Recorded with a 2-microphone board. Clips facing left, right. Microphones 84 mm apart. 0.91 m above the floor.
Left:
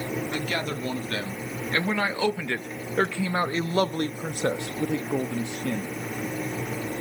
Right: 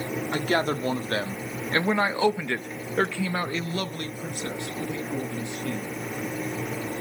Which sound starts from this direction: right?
A man speaking, at 0.3 s.